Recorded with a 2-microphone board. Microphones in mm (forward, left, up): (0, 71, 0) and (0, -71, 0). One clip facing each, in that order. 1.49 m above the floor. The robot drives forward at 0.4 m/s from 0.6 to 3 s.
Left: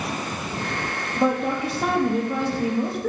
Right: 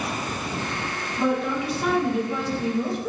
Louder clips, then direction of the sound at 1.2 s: Left 2 dB; 40° left (ahead or behind).